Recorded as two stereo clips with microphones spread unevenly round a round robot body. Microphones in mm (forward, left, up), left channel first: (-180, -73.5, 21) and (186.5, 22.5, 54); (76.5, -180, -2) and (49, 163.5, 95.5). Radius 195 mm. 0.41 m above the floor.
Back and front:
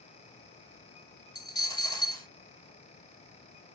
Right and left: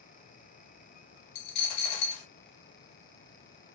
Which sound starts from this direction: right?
A dropped coin, at 1.4 s.